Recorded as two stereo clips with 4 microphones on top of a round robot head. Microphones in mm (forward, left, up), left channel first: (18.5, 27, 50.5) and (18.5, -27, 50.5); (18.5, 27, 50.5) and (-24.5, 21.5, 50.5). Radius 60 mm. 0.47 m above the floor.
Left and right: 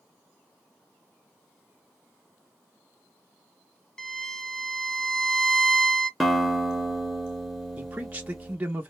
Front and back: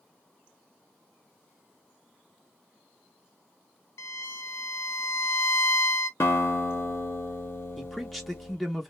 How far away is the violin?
About 0.6 m.